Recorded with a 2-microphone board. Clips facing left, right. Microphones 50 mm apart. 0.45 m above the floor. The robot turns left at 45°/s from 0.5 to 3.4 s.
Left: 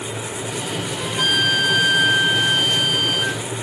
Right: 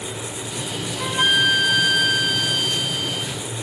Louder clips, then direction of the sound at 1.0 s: Right 2 dB; 150° right.